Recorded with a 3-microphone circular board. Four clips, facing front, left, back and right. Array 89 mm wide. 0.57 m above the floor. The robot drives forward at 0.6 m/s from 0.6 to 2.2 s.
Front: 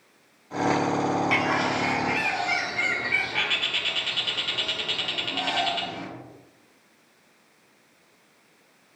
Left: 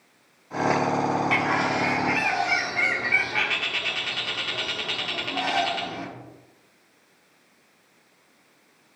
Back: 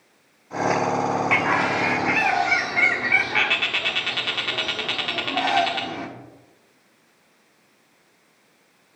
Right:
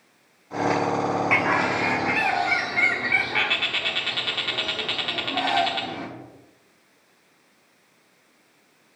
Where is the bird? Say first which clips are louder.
Right 1 dB, back 3 dB; 140° right, 0.8 m; by 6.1 s 165° right, 1.1 m.